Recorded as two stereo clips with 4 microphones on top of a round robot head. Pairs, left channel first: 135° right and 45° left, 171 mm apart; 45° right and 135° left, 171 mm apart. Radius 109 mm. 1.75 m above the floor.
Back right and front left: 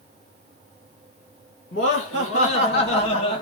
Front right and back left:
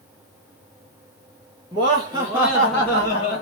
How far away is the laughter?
About 1.2 m.